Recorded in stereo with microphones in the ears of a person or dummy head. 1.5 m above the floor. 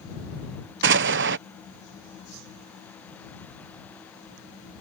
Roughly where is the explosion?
Right.